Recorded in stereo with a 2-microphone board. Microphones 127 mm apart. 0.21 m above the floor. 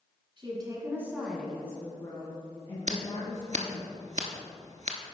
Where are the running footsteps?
No running footsteps in this recording.